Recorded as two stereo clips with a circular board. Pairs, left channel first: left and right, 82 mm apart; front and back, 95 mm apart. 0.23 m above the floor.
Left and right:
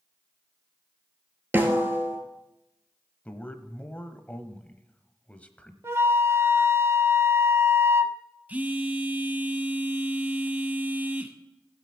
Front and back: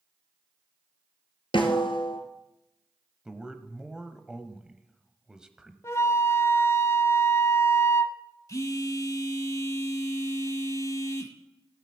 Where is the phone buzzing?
30° right, 1.0 m.